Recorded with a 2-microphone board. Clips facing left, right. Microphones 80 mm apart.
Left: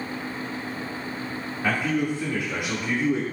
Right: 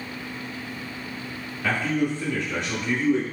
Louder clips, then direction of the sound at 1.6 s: Even; 15° left (ahead or behind).